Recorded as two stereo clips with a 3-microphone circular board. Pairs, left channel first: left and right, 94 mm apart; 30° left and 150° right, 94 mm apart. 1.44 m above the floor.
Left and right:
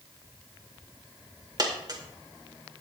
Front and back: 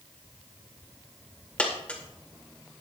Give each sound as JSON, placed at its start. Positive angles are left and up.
{"t": 1.6, "sound": "a dropped coin", "azimuth_deg": -45, "distance_m": 2.0}